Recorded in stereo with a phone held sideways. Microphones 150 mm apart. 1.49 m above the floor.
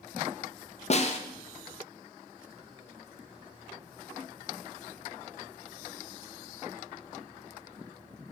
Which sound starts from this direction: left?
A snare drum, at 0.9 s.